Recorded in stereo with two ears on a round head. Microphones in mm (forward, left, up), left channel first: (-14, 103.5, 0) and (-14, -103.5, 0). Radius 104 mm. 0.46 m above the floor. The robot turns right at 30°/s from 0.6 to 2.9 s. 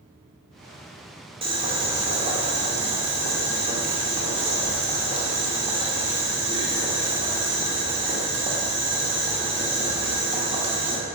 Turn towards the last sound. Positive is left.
turn(degrees=-25)  # may be behind; listen again after turning